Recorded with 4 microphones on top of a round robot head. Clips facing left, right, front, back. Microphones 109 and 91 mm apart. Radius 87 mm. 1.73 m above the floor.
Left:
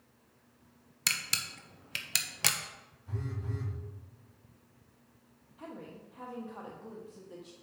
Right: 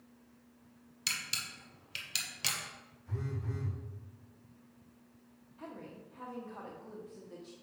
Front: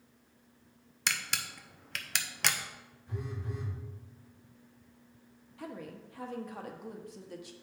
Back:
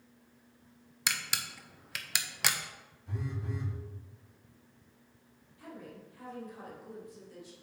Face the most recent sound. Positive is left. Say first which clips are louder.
# left 1 dB, front 4 dB
turn(degrees=10)